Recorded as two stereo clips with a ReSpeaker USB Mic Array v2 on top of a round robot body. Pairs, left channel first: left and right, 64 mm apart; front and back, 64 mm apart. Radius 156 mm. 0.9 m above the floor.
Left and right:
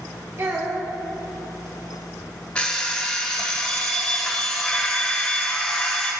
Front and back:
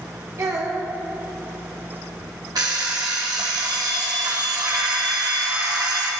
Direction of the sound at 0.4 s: 140° right.